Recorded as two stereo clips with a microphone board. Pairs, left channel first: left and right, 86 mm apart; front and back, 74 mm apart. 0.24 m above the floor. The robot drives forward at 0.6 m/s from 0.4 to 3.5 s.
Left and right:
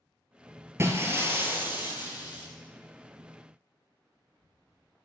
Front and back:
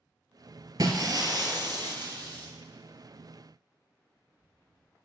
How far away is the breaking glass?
About 1.3 m.